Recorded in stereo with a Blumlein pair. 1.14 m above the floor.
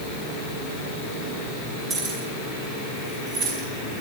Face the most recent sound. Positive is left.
turn(degrees=-35)